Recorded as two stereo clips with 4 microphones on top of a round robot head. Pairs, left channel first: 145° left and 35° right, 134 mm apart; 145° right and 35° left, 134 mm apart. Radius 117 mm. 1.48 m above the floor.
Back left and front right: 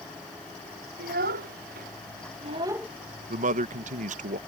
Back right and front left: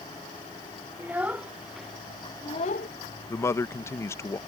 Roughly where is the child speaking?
Ahead right.